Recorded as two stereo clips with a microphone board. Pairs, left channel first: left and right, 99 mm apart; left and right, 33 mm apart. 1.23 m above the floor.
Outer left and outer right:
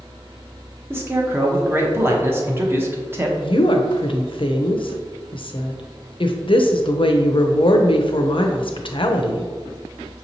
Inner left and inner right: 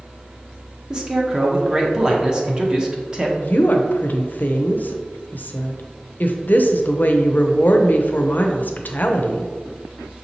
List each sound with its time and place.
0.9 s a man speaking: 25° right (ahead or behind), 0.8 m
3.4 s a woman speaking: 60° left (ahead or behind), 0.6 m